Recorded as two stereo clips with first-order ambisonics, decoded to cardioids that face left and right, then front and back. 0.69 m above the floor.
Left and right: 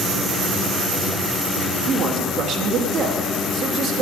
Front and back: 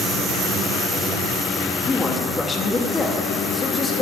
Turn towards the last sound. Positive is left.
turn(degrees=-70)